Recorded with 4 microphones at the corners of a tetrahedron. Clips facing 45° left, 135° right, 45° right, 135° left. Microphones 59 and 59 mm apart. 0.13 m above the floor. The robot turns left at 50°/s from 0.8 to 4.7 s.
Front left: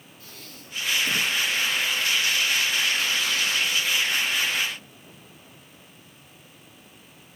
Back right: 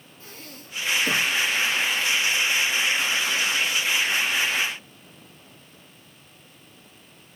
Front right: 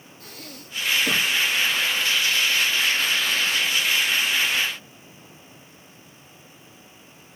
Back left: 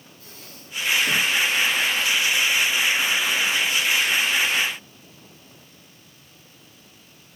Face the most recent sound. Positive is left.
turn(degrees=90)